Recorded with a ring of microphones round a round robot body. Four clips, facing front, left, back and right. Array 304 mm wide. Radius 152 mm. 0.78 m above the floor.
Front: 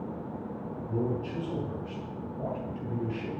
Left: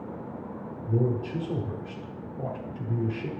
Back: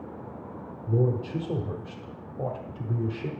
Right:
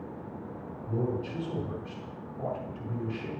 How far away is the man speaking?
About 1.9 m.